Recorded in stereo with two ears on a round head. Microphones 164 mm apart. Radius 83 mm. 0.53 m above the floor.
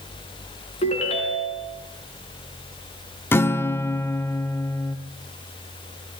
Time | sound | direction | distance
0.8 | a ringtone | 35° left (ahead or behind) | 4 m
3.3 | a guitar | 15° left (ahead or behind) | 1.0 m